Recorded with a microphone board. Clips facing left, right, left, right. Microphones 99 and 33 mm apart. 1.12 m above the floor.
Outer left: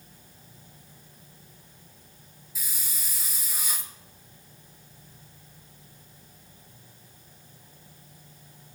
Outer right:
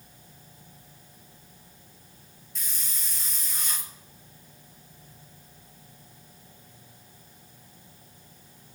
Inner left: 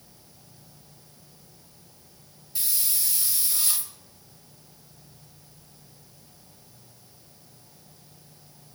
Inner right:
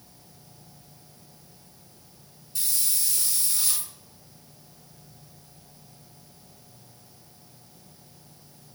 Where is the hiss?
5° left (ahead or behind), 1.0 m.